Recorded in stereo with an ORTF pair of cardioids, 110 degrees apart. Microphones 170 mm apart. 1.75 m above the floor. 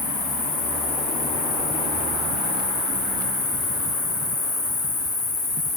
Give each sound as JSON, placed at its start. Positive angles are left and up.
{"t": 0.0, "sound": "an insect", "azimuth_deg": 40, "distance_m": 1.3}